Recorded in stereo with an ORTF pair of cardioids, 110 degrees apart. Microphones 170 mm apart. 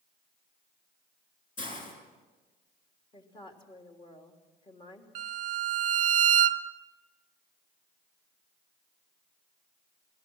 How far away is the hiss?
About 7 m.